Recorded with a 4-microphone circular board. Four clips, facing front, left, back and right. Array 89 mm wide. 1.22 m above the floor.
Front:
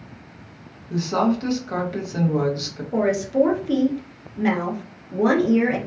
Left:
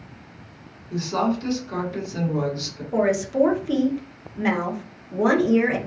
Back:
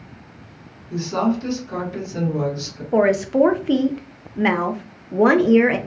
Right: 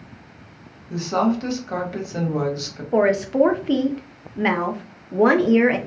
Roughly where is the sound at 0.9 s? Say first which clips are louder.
Right 3 dB, even; ahead right.